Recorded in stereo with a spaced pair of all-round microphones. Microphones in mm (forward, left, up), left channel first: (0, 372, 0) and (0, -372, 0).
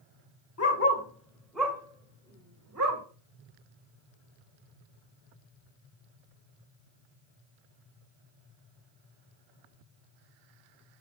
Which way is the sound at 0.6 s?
20° left (ahead or behind).